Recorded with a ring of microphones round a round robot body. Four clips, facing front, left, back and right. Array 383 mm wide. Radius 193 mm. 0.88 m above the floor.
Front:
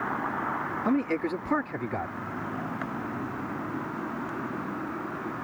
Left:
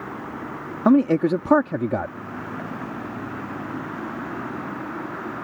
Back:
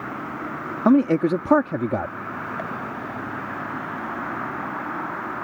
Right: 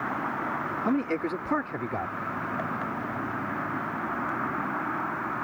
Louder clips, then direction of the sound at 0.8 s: Left 12 dB, back 11 dB; 135° left.